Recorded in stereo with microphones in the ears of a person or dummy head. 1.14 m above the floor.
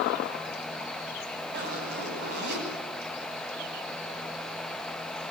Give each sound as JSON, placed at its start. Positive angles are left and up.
{"t": 1.5, "sound": "a zipper", "side_deg": -55, "distance_m": 8.0}